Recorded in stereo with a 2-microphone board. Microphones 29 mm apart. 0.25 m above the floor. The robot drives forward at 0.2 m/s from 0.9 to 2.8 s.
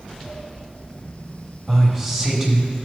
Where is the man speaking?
20° right (ahead or behind), 1.3 m; by 2.7 s 15° right (ahead or behind), 1.3 m.